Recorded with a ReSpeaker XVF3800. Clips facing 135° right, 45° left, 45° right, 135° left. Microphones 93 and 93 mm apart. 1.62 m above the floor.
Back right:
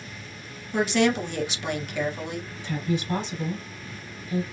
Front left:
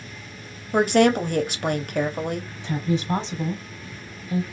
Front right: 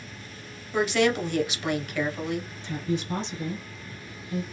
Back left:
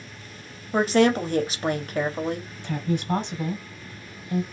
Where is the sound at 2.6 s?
110° left, 1.0 m.